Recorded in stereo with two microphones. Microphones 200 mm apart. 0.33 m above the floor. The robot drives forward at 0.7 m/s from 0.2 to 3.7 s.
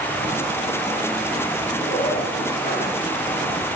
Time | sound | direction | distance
1.8 | a zipper | 40° left (ahead or behind) | 5.5 m